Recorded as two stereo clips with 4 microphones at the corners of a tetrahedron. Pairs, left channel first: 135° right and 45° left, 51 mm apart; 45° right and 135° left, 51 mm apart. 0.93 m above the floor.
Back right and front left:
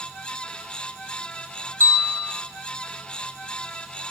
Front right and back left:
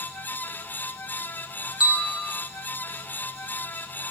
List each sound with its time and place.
1.8 s a bell: 60° left, 1.6 m